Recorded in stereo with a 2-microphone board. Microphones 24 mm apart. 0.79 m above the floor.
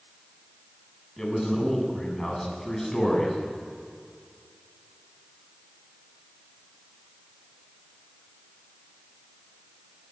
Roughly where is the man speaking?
Centre.